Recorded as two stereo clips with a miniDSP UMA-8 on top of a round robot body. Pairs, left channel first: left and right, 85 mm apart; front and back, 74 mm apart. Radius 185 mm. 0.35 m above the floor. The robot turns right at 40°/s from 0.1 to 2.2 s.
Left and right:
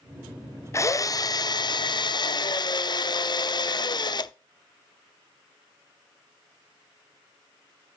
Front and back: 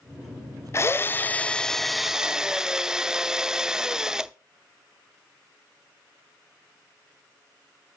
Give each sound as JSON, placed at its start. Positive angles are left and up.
{"t": 0.7, "sound": "a drill", "azimuth_deg": 40, "distance_m": 0.6}